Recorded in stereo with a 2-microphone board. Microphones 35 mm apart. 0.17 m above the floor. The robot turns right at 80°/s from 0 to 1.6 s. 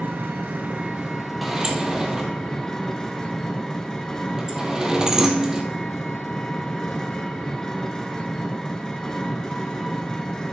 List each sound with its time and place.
0.0 s an engine running: 110° right, 1.3 m; by 10.5 s 15° left, 1.3 m
1.4 s a sliding door: centre (ahead or behind), 1.5 m; by 5.6 s 15° right (ahead or behind), 1.5 m